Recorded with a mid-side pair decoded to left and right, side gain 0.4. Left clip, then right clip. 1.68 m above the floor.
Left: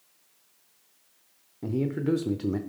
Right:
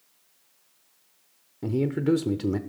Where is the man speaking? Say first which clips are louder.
Right 3 dB; 25° right, 0.6 m.